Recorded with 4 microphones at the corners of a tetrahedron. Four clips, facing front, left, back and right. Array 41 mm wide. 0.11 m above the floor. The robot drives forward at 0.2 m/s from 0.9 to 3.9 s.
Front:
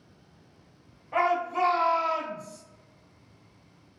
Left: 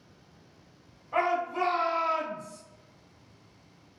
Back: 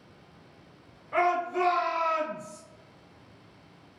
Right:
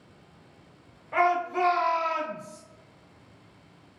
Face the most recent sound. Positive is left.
turn(degrees=-125)